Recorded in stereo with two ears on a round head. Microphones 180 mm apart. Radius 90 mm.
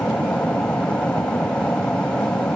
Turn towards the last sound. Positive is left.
turn(degrees=5)  # may be behind; listen again after turning